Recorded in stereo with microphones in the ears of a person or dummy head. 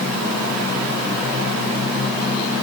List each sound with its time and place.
Only background noise.